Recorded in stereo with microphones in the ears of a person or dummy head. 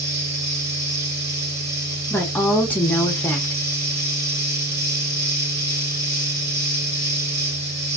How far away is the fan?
About 1.7 m.